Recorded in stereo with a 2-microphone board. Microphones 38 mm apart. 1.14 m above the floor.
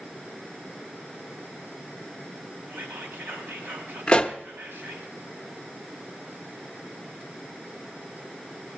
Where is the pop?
30° left (ahead or behind), 0.8 m.